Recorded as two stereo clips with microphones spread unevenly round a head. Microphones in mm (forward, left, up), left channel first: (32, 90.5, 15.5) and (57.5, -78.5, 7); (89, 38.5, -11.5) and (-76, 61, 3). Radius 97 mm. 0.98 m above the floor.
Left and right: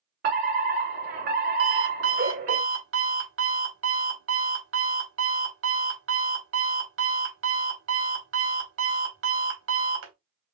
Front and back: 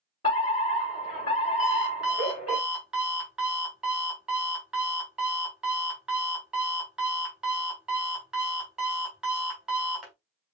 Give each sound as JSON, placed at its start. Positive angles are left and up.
{"t": 0.2, "sound": "a fire alarm", "azimuth_deg": -70, "distance_m": 3.5}
{"t": 1.6, "sound": "an alarm clock", "azimuth_deg": -100, "distance_m": 1.6}